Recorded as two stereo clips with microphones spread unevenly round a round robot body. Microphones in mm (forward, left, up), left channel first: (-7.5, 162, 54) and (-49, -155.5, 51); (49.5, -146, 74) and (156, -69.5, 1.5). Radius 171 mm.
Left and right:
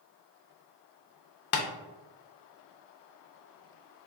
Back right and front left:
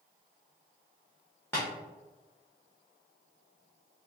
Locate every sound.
1.5 s tapping: 130° left, 0.6 m